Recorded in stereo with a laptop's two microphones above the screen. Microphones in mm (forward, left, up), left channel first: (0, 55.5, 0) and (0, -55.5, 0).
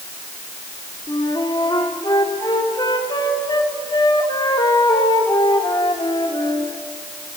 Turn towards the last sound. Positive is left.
turn(degrees=40)  # may be behind; listen again after turning